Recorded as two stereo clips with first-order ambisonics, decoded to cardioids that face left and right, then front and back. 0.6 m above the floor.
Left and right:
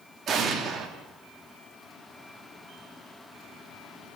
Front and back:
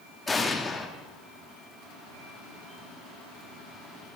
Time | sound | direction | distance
0.3 | an explosion | 70° right | 1.1 m